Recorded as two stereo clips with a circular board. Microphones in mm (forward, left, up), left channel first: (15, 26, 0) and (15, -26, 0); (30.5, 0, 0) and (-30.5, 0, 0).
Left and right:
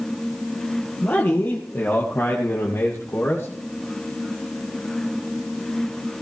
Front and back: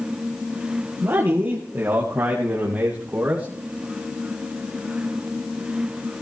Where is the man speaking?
130° left, 2.5 m; by 3.5 s 120° left, 3.5 m.